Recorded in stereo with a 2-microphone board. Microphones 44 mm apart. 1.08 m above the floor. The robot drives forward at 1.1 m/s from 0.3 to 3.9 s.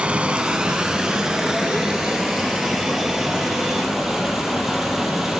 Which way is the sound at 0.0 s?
25° right (ahead or behind).